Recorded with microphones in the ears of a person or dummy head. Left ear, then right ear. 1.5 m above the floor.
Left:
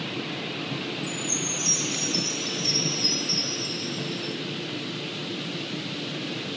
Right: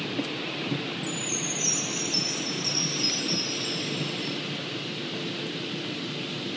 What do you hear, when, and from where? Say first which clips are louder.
1.0 s a chime: left 1 dB; 20° right (ahead or behind), 1.2 m